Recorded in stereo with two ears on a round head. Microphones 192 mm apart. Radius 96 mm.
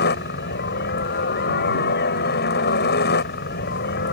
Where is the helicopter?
50° left (ahead or behind).